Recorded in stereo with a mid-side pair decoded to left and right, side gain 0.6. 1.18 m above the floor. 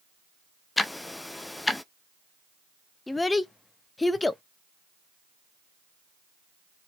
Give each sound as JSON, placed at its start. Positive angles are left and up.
{"t": 0.8, "sound": "ticking", "azimuth_deg": 10, "distance_m": 0.8}
{"t": 3.1, "sound": "a child speaking", "azimuth_deg": 15, "distance_m": 0.8}